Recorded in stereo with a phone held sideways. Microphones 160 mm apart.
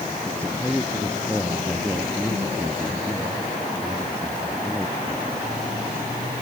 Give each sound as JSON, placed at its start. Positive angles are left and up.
{"t": 0.2, "sound": "a man speaking", "side_deg": 10}